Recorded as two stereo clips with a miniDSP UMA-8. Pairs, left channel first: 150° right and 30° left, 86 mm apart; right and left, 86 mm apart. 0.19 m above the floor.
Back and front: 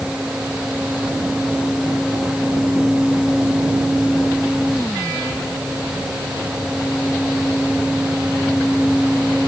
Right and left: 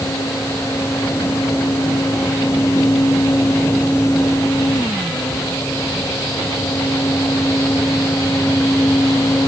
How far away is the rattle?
No rattle in this recording.